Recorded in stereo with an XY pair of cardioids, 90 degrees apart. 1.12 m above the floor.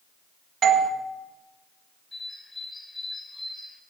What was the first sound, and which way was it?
A doorbell, 70° right.